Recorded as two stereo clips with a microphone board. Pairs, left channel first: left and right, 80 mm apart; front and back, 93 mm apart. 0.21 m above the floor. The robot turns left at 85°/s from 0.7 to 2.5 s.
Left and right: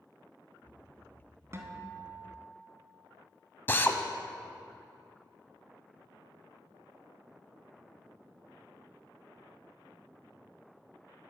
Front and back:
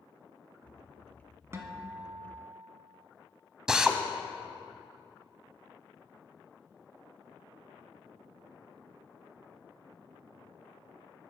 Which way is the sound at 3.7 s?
105° left.